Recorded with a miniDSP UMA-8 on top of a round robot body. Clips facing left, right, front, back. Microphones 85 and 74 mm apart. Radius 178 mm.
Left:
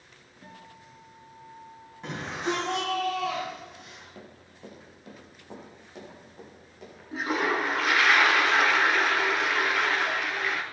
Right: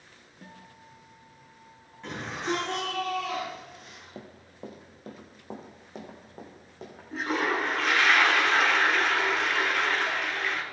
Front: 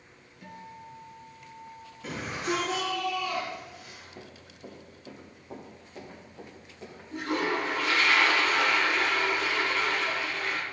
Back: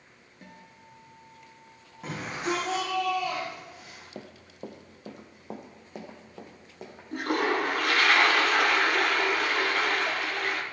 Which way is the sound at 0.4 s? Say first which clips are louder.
Left 1 dB, front 7 dB; 130° right.